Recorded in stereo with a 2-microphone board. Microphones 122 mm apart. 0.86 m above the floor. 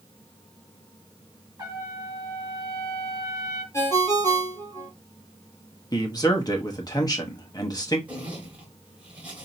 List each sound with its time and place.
1.6 s a trumpet: 30° right (ahead or behind), 2 m
3.7 s a ringtone: 25° left (ahead or behind), 1.6 m
5.9 s a man speaking: 35° left (ahead or behind), 0.9 m
8.1 s a zipper: 10° right (ahead or behind), 2 m